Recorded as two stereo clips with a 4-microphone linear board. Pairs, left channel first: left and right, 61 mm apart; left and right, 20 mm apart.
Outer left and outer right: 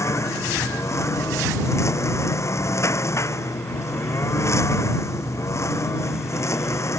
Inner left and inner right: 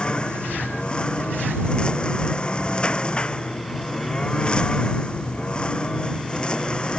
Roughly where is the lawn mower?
Left.